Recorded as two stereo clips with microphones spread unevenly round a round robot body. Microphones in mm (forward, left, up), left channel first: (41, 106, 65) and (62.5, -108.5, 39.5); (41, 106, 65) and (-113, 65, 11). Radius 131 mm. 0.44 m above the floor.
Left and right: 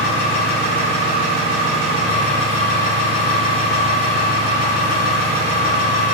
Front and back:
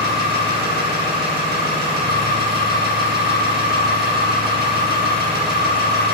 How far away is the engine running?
About 4 m.